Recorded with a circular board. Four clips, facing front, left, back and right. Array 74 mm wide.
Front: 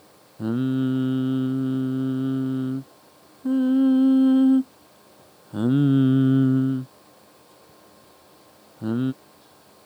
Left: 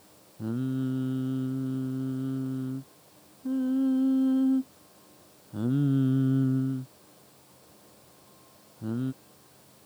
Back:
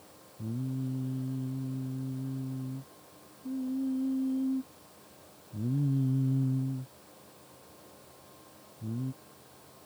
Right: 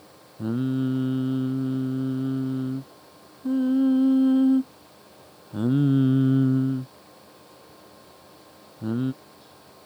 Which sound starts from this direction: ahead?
Singing, at 0.4 s.